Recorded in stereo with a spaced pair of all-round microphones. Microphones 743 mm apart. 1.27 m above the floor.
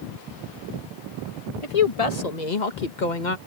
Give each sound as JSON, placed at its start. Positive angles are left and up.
{"t": 1.6, "sound": "a woman speaking", "side_deg": 45}